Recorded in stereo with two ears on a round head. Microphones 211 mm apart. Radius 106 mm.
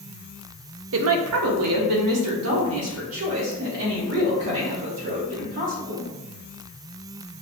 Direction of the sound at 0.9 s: 55° right (ahead or behind).